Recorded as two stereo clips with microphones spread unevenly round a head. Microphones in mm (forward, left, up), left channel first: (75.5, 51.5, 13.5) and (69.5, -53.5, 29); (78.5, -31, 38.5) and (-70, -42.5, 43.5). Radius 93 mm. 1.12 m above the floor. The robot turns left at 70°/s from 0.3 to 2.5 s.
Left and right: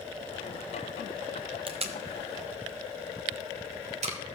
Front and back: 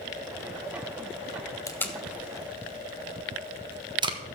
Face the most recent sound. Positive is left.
turn(degrees=-120)